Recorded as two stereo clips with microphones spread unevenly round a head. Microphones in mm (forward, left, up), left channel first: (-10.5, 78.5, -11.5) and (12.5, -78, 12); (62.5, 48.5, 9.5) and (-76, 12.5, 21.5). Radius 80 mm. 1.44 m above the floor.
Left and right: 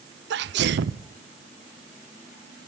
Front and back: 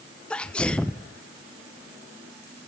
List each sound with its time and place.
0.3 s a sneeze: 65° right, 0.7 m